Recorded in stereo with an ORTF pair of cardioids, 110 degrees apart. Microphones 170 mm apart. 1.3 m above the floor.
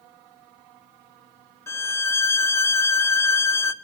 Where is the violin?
15° left, 0.6 m.